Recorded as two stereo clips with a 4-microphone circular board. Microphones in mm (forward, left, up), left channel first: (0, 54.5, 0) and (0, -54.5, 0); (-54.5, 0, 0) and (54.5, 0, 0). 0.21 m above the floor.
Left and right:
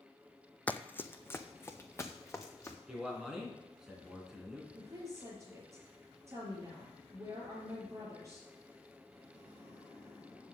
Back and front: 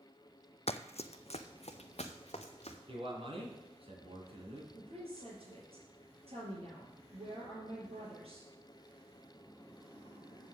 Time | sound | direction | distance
0.7 | running footsteps | 165° left | 0.5 m
2.9 | a man speaking | 5° right | 3 m
4.7 | a woman speaking | 25° right | 5 m